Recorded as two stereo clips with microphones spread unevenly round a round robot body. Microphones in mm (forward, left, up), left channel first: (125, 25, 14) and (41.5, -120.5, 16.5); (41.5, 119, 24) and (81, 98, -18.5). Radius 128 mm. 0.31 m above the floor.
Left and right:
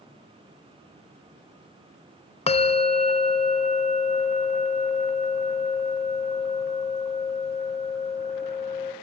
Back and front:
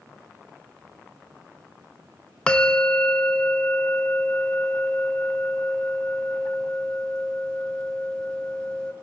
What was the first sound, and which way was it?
A bell, 30° left.